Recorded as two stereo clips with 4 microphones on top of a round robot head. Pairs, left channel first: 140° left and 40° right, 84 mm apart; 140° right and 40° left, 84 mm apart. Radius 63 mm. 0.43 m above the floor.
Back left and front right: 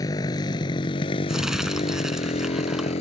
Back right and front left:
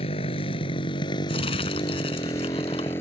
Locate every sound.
0.0 s a motorcycle: 165° right; by 3.0 s 150° left
1.3 s crumpling: 125° right